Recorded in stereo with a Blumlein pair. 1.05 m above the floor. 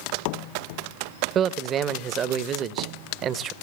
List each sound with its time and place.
1.4 s a man speaking: 30° right, 1.0 m